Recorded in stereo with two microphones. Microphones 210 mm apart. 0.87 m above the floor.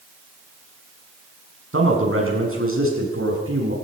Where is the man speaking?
80° right, 7 m; by 3.8 s 85° right, 8 m.